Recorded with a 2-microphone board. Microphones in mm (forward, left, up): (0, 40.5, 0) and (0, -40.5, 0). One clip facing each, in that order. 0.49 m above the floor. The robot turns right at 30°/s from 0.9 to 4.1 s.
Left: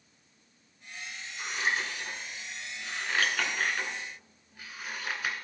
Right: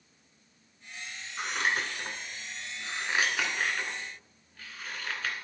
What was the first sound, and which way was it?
Scissors, 70° right (ahead or behind).